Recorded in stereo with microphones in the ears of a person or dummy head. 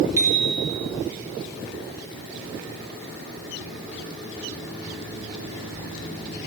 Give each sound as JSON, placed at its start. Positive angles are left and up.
{"t": 0.2, "sound": "a bicycle bell", "side_deg": -15, "distance_m": 3.0}